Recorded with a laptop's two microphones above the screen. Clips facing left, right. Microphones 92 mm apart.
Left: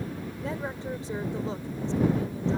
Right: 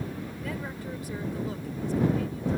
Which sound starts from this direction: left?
A woman speaking, at 0.4 s.